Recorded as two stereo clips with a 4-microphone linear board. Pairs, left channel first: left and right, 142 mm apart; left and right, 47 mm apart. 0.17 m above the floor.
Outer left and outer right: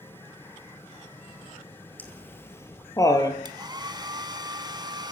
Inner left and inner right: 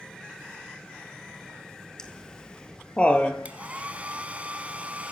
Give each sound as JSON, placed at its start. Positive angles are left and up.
{"t": 2.0, "sound": "laughter", "side_deg": 10, "distance_m": 3.0}
{"t": 3.5, "sound": "a hair dryer", "side_deg": -30, "distance_m": 1.1}